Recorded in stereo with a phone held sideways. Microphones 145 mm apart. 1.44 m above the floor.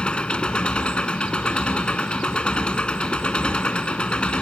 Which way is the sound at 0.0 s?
10° left (ahead or behind).